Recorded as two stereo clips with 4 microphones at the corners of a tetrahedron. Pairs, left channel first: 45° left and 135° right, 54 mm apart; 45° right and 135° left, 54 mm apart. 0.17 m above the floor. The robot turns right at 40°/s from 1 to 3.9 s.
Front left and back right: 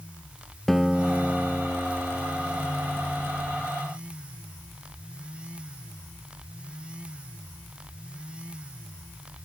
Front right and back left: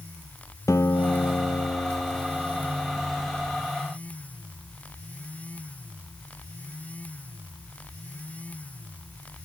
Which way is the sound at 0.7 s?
40° right.